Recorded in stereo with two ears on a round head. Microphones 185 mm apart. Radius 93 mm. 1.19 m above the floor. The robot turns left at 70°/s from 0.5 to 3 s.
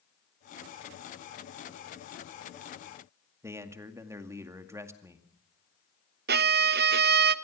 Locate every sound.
3.4 s a man speaking: 15° right (ahead or behind), 2 m
6.3 s a violin: 50° right (ahead or behind), 0.8 m